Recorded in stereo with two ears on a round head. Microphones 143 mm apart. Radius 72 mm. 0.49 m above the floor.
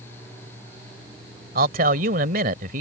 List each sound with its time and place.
1.6 s a man speaking: 60° right (ahead or behind)